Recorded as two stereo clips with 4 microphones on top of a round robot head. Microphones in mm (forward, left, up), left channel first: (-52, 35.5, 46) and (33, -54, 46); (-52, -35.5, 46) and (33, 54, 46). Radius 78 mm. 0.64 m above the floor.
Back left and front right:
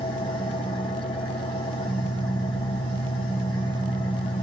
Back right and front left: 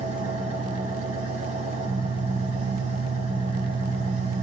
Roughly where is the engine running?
Left.